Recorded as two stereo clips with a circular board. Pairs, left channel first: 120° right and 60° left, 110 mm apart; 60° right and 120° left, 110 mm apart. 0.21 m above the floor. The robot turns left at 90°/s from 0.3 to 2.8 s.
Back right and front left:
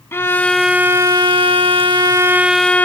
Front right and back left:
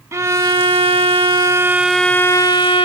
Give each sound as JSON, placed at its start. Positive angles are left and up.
{"t": 0.1, "sound": "a violin", "azimuth_deg": 175}